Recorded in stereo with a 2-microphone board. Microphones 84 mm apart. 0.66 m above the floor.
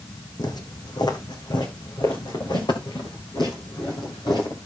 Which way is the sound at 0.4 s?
55° left (ahead or behind).